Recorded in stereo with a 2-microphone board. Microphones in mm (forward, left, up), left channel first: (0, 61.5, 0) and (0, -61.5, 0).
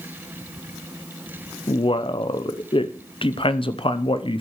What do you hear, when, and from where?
1.7 s a man speaking: 45° left (ahead or behind), 0.7 m